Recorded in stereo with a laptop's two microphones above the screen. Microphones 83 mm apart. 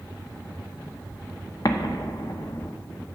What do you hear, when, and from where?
1.6 s an explosion: 50° left (ahead or behind), 0.7 m